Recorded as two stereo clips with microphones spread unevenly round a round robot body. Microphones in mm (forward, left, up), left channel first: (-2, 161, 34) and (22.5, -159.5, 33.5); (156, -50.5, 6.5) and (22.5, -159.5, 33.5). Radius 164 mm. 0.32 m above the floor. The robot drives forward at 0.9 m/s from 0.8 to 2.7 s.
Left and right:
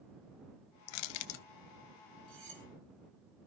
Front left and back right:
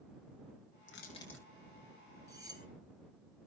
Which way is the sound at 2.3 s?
70° right.